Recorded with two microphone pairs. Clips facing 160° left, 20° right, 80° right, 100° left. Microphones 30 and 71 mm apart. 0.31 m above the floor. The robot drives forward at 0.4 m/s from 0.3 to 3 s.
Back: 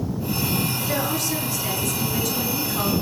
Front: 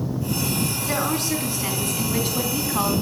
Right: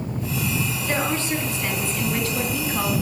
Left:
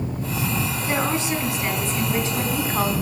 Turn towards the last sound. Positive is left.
turn(degrees=40)